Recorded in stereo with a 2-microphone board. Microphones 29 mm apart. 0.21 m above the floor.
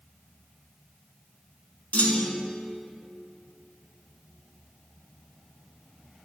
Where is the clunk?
60° left (ahead or behind), 0.7 m.